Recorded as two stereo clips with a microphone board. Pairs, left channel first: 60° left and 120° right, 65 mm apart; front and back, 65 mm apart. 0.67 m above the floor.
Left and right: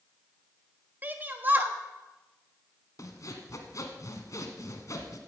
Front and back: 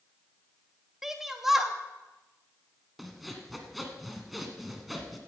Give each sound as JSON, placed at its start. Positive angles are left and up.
{"t": 1.0, "sound": "a shout", "azimuth_deg": -100, "distance_m": 1.1}
{"t": 3.0, "sound": "sawing", "azimuth_deg": 90, "distance_m": 1.4}